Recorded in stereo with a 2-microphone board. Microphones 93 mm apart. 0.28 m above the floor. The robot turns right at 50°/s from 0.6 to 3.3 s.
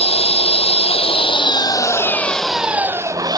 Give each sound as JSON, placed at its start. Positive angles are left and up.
{"t": 0.0, "sound": "an engine running", "azimuth_deg": 85}